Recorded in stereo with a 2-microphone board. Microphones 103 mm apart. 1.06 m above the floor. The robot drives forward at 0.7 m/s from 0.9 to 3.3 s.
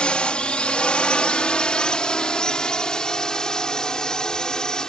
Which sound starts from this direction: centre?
A drone, at 0.0 s.